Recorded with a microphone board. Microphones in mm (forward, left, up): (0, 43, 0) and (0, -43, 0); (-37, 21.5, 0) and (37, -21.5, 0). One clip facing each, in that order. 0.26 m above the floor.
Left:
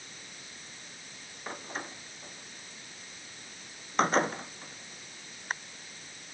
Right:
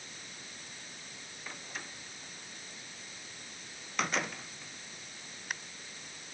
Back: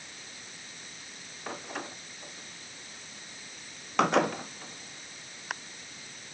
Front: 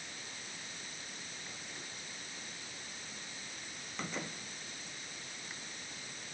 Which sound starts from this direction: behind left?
A door slam, at 1.5 s.